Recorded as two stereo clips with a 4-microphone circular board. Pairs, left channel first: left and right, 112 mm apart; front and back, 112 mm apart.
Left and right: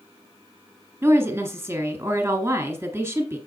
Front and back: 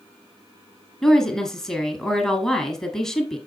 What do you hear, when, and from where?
1.0 s a woman speaking: 75° right, 1.7 m